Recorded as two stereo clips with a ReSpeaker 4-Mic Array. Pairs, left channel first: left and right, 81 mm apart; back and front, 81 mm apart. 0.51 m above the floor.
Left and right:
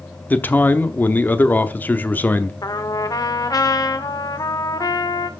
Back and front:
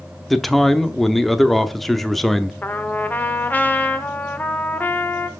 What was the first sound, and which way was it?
A man speaking, 95° left.